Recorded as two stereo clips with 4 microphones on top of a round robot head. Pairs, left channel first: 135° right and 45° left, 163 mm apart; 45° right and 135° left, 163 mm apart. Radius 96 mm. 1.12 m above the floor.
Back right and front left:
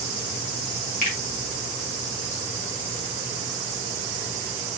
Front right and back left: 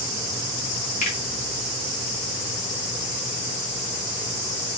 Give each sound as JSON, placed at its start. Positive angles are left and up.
{"t": 1.0, "sound": "a finger snap", "azimuth_deg": -90, "distance_m": 2.0}